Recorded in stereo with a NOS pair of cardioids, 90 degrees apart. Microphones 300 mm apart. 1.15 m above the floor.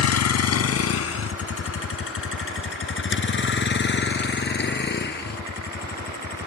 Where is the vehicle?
60° left; by 6.5 s 30° left.